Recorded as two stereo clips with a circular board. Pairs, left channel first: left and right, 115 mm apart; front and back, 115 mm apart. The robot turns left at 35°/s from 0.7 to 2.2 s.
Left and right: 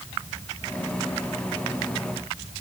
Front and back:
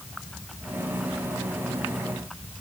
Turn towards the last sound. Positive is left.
No sound to turn to.